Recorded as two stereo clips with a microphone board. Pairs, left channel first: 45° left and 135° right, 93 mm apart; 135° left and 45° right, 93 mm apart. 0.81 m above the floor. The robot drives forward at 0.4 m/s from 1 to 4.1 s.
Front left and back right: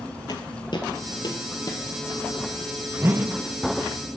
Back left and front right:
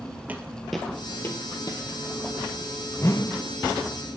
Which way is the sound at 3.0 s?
170° left.